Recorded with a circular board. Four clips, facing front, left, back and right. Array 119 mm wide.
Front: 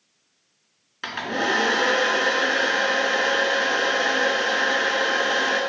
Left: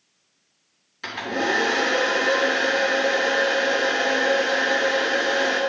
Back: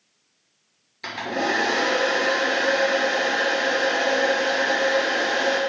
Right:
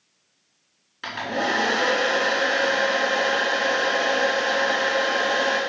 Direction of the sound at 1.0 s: 15° right.